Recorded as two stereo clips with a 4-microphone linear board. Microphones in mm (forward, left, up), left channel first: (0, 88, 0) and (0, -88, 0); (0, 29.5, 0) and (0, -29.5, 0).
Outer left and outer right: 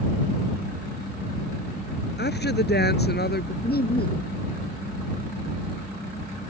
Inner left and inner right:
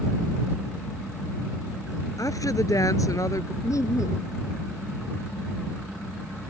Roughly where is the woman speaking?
Left.